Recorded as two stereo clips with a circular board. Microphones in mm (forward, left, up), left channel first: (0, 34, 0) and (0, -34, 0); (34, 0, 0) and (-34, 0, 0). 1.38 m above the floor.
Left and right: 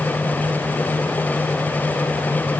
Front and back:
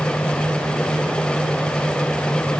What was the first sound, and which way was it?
Only background noise.